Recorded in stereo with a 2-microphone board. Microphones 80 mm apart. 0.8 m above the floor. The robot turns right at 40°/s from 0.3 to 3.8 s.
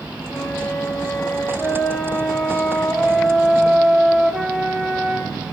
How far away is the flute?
About 0.9 m.